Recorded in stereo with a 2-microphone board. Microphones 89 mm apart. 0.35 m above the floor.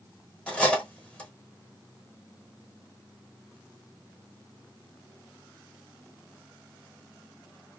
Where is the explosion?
I don't hear an explosion.